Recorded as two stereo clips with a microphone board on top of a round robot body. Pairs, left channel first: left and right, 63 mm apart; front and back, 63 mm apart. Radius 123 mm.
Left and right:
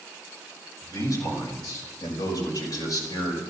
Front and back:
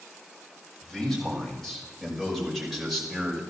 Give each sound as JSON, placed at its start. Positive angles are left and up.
{"t": 0.8, "sound": "a man speaking", "azimuth_deg": 85, "distance_m": 6.0}